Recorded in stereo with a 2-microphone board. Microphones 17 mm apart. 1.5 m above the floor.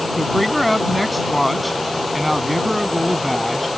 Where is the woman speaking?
Centre (ahead or behind).